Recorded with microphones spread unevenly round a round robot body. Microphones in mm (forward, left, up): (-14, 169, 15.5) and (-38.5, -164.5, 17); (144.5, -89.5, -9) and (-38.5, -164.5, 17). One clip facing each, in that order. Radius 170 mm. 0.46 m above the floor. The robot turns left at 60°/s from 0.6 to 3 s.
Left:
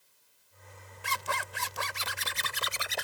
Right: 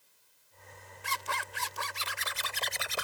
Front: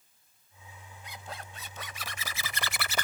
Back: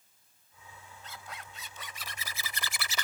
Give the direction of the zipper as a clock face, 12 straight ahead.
9 o'clock.